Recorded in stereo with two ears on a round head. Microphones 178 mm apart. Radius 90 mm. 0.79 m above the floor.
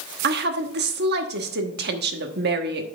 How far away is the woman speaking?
About 1.2 m.